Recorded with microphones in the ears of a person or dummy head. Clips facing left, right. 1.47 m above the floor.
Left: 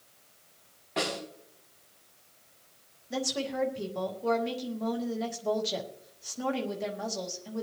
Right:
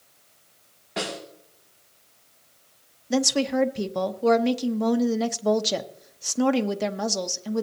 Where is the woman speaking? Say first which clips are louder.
Right 10 dB; 65° right (ahead or behind), 0.9 m.